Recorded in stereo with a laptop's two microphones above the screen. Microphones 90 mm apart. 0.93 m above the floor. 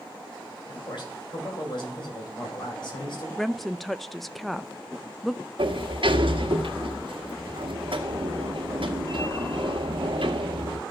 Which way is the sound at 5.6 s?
65° right (ahead or behind).